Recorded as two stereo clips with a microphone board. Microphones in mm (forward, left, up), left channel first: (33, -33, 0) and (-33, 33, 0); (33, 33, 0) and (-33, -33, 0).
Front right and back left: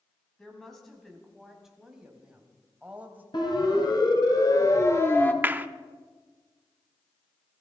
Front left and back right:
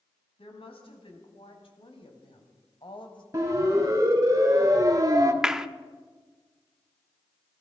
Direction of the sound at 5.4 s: 155° left.